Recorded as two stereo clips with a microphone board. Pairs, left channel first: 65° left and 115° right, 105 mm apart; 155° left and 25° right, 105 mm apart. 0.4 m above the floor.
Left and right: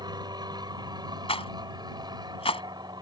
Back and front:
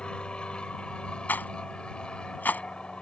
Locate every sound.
0.0 s an aircraft: 125° right
1.3 s a rattle: 85° left